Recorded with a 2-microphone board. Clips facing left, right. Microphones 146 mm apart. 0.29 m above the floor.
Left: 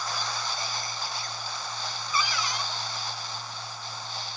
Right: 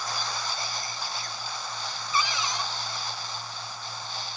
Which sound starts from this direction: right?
A cupboard door, at 2.1 s.